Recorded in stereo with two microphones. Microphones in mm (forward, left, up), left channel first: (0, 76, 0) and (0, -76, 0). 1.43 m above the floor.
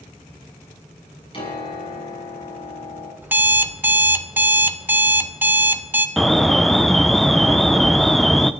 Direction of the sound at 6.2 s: Centre (ahead or behind).